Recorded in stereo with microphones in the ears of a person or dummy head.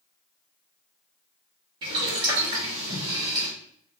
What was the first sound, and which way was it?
Boiling, 30° right (ahead or behind).